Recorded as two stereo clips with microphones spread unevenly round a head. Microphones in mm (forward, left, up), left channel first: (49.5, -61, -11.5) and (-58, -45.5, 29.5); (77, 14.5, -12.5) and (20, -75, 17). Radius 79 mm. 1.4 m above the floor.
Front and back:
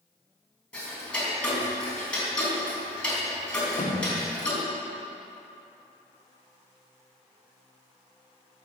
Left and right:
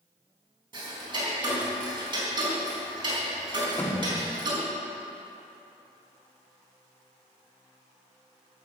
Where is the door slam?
15° right, 2 m.